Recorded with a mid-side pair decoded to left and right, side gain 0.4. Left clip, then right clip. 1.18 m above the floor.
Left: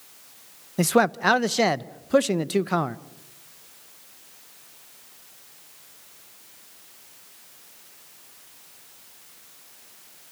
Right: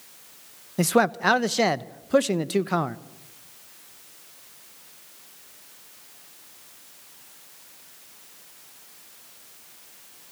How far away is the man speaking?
About 0.9 m.